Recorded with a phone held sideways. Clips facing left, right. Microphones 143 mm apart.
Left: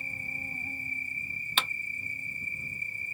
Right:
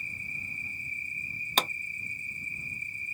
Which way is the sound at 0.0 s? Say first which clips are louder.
Left 3 dB; 55° left (ahead or behind).